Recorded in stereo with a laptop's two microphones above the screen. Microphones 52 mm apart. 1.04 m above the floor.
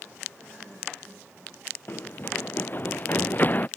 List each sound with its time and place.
1.9 s running footsteps: 40° left (ahead or behind); by 3.7 s 35° left (ahead or behind)